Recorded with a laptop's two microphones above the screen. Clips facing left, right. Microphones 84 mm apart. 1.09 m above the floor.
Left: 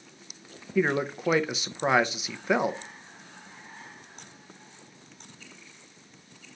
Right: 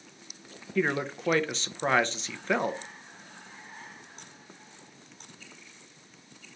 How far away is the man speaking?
About 0.5 m.